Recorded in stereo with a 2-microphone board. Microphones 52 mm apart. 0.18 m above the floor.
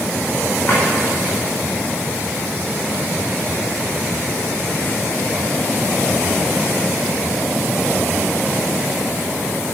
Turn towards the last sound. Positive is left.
turn(degrees=40)  # may be behind; listen again after turning